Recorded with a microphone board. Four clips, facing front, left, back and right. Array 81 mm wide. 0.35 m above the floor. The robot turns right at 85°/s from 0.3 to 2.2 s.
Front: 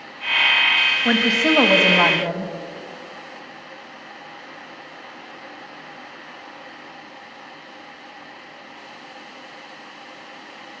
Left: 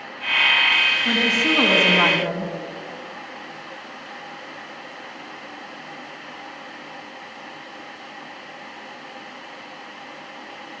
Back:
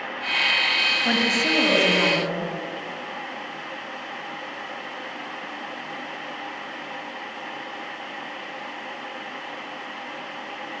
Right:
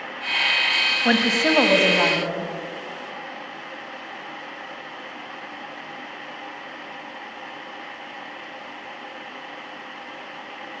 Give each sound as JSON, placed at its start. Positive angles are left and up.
{"t": 1.1, "sound": "a woman speaking", "azimuth_deg": -80, "distance_m": 2.5}